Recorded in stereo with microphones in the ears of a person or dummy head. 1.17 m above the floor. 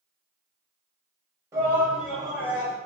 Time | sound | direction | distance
1.5 | a shout | 20° right (ahead or behind) | 1.1 m